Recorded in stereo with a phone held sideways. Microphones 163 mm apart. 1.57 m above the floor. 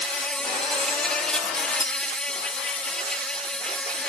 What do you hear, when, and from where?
0.0 s an insect: 5° left (ahead or behind)
1.8 s a clink: 25° left (ahead or behind)